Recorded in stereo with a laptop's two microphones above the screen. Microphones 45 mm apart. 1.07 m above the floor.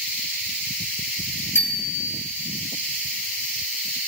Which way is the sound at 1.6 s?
65° left (ahead or behind).